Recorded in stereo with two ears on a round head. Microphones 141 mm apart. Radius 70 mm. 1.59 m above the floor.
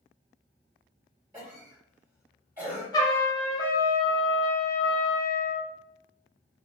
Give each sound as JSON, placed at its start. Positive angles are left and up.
{"t": 1.3, "sound": "a cough", "side_deg": -15, "distance_m": 1.6}
{"t": 2.9, "sound": "a trumpet", "side_deg": 25, "distance_m": 0.8}